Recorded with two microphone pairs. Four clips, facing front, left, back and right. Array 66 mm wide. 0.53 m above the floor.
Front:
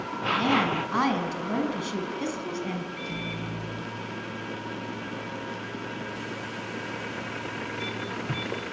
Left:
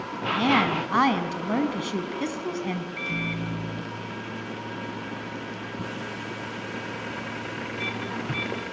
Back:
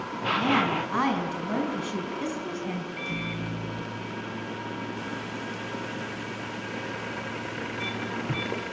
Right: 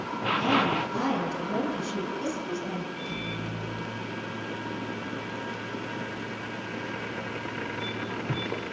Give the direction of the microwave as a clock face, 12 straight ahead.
8 o'clock.